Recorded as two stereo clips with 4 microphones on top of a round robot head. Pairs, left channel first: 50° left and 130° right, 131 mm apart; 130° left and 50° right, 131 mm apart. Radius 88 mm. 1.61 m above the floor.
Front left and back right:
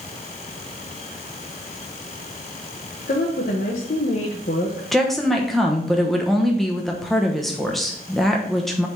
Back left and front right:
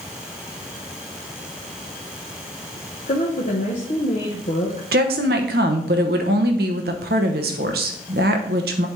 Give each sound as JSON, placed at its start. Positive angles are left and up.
{"t": 3.1, "sound": "a woman speaking", "azimuth_deg": 90, "distance_m": 1.1}
{"t": 4.9, "sound": "a woman speaking", "azimuth_deg": -40, "distance_m": 1.0}